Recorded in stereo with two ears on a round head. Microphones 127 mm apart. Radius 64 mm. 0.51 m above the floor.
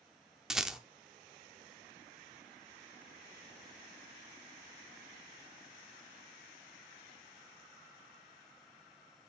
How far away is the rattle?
About 0.6 m.